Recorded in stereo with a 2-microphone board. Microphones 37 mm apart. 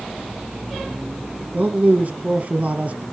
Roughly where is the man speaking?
Right.